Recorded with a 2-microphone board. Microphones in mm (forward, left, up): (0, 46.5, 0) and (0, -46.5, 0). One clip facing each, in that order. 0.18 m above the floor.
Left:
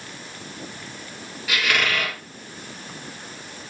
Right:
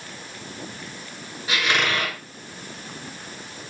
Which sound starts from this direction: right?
A squeak, at 1.5 s.